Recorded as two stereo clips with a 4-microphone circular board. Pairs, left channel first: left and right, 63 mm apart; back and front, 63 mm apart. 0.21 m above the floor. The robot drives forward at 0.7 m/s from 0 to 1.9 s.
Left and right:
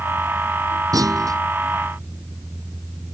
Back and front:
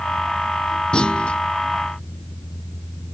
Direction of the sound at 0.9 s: 105° right.